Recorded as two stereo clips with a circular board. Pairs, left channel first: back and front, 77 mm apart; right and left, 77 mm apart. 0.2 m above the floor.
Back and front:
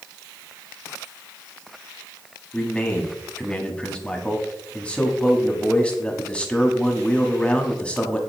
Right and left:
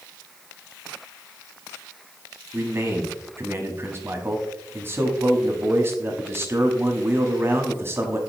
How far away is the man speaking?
About 1.2 m.